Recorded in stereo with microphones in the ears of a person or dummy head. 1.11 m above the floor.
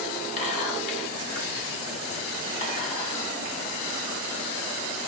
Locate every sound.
0.4 s whispering: 40° left (ahead or behind), 1.9 m